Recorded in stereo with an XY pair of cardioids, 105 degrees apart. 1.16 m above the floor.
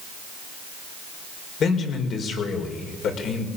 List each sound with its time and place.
1.6 s a man speaking: 60° left, 5 m